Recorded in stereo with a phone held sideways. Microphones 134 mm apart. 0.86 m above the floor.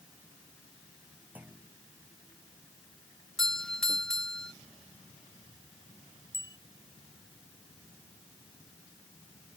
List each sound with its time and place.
1.4 s a clunk: 15° right (ahead or behind)
3.4 s a doorbell: 5° left (ahead or behind)
6.3 s a bicycle bell: 20° right (ahead or behind)